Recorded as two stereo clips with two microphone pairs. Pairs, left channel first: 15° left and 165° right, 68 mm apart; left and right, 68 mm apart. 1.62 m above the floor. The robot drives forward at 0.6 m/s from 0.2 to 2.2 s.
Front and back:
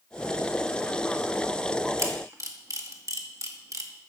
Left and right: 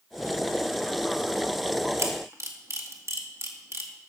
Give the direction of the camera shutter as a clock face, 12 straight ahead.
4 o'clock.